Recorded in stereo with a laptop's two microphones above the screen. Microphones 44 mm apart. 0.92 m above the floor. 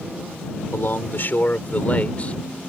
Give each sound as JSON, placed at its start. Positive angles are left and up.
{"t": 0.7, "sound": "a man speaking", "side_deg": 55}